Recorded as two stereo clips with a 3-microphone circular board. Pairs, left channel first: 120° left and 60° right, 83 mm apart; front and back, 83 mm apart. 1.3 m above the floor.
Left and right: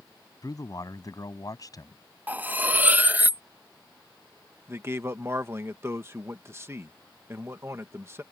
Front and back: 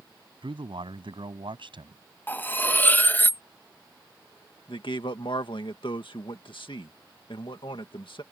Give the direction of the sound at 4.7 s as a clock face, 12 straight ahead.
12 o'clock.